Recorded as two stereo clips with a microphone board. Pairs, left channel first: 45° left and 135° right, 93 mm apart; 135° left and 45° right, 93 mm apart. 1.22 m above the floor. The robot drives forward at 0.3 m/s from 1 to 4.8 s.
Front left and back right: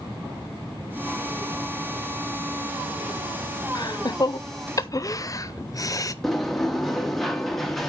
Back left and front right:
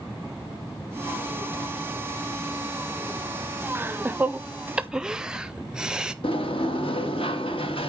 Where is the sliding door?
130° left, 1.0 m.